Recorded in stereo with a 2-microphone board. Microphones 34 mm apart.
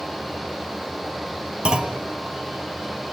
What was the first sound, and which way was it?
A clunk, 25° right (ahead or behind).